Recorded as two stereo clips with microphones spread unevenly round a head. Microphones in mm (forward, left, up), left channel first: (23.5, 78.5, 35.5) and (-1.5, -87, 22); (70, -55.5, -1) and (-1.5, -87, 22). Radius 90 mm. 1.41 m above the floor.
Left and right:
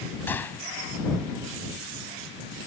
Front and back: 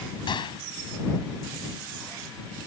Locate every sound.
0.3 s a gunshot: 5° left